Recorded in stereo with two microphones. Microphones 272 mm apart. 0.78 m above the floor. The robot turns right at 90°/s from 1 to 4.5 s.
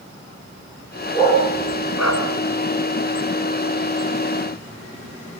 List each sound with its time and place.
1.1 s a dog barking: 15° left (ahead or behind), 3 m; by 2.2 s 65° left (ahead or behind), 3 m